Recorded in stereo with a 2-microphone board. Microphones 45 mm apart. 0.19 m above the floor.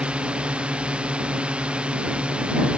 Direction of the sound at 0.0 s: 25° right (ahead or behind).